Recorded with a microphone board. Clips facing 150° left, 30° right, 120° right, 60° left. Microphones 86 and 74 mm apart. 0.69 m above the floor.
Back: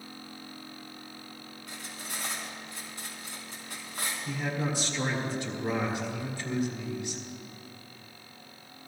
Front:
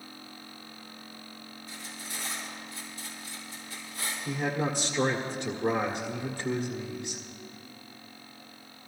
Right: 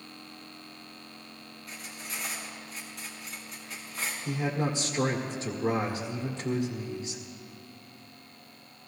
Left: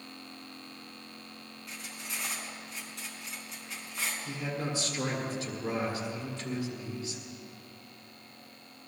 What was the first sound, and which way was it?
Cutlery clinking, 150° left.